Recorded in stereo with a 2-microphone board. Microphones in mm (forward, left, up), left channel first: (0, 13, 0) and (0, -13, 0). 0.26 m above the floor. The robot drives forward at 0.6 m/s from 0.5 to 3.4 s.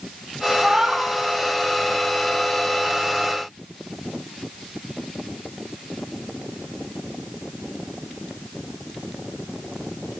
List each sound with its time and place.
0.6 s a cat meowing: 30° right (ahead or behind), 0.6 m; by 1.1 s 20° right (ahead or behind), 0.9 m